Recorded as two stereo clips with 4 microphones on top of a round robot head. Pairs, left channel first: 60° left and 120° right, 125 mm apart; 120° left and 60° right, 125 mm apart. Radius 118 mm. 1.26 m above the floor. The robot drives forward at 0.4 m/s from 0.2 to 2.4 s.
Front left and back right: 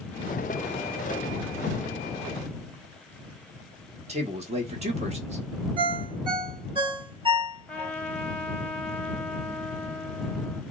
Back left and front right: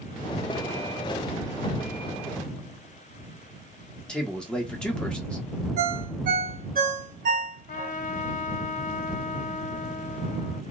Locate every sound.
4.1 s a man speaking: 155° right, 1.4 m
5.8 s a ringtone: 70° right, 1.0 m
7.7 s a trumpet: 140° left, 1.0 m